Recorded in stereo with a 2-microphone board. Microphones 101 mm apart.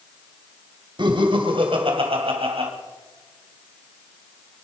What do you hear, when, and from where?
1.0 s laughter: 50° right (ahead or behind), 2.5 m; by 2.7 s 70° right (ahead or behind), 3.5 m